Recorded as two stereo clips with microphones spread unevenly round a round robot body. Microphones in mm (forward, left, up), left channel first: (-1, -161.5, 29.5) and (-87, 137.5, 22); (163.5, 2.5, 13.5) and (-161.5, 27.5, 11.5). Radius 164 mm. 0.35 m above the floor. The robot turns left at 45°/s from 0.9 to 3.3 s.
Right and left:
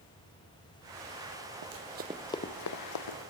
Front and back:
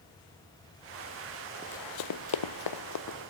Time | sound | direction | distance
1.6 | running footsteps | 90° left | 0.7 m